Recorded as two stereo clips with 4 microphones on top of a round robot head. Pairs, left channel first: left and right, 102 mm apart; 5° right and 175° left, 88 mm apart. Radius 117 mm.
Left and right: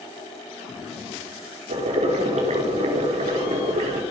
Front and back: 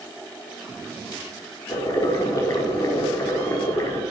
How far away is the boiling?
About 4.5 m.